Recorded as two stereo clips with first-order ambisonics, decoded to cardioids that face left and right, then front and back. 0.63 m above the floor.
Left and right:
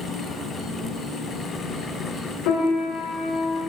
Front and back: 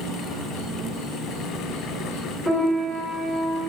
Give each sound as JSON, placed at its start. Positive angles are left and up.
{"t": 0.0, "sound": "an insect", "azimuth_deg": -140, "distance_m": 1.4}
{"t": 2.5, "sound": "a piano", "azimuth_deg": 95, "distance_m": 1.7}